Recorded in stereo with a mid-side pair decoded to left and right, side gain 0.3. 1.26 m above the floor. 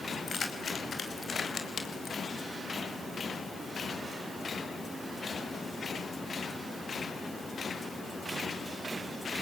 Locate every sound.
0.1 s keys jangling: 50° left, 5 m; by 2.2 s 55° left, 4 m